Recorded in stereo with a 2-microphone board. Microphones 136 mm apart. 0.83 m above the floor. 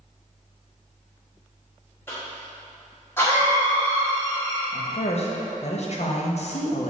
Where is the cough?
15° left (ahead or behind), 1.6 m.